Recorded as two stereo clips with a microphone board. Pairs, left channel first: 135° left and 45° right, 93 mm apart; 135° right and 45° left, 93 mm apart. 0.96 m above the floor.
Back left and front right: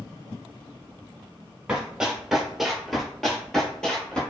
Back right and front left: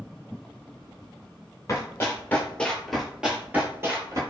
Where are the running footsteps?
120° right, 1.1 m; by 4.2 s 60° left, 1.1 m.